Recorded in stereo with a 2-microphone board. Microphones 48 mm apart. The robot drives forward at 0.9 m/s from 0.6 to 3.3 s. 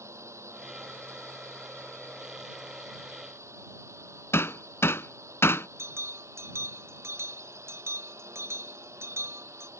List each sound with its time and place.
0.0 s a drone: 80° right
4.3 s hammering: 60° left (ahead or behind)
5.8 s a bell: 65° right (ahead or behind)